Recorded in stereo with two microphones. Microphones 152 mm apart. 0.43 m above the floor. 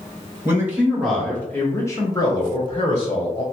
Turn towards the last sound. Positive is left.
turn(degrees=45)  # may be behind; listen again after turning